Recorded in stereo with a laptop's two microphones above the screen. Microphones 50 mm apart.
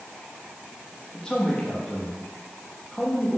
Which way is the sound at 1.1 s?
15° left (ahead or behind).